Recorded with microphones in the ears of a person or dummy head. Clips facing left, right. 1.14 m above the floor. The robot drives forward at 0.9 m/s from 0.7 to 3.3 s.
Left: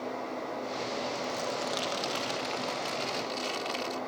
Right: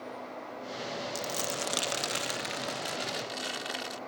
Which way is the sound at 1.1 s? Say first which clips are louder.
Left 2 dB; 65° right (ahead or behind).